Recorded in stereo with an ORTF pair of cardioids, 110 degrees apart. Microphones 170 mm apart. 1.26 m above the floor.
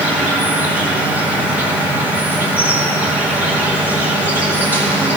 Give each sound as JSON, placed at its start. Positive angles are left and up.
{"t": 0.0, "sound": "an insect", "azimuth_deg": -10, "distance_m": 2.0}